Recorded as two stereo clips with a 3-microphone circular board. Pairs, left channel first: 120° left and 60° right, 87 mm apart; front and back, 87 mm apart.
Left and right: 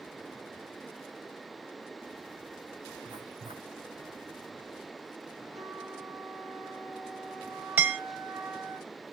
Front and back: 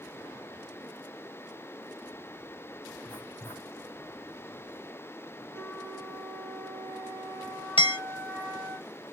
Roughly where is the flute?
Right.